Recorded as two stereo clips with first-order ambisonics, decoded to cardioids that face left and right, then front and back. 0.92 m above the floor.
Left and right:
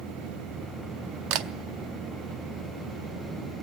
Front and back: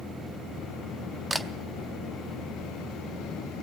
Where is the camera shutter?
95° right, 0.6 m.